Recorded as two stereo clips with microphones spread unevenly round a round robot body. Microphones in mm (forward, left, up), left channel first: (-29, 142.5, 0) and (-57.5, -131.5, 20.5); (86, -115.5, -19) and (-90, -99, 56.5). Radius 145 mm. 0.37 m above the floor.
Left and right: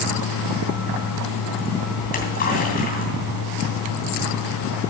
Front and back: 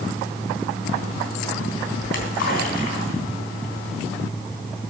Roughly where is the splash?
Ahead.